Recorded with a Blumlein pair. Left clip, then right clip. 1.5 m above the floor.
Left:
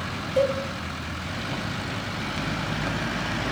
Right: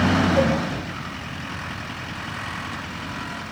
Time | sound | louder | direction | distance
0.4 | a cowbell | left 2 dB | 5° left | 0.9 m